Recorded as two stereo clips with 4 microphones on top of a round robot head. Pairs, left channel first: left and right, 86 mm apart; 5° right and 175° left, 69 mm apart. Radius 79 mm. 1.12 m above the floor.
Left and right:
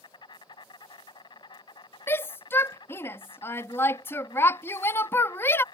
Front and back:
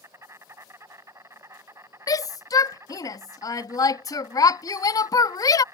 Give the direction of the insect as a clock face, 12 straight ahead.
8 o'clock.